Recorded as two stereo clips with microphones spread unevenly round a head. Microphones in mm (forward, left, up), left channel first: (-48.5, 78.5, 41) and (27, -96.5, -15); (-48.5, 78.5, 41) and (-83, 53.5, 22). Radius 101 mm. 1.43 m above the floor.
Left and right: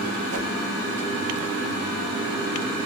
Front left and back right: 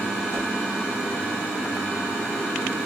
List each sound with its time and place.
0.3 s a whoosh: 100° right, 0.7 m